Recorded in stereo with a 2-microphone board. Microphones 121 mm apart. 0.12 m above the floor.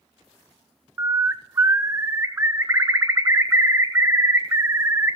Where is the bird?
20° right (ahead or behind), 1.0 m.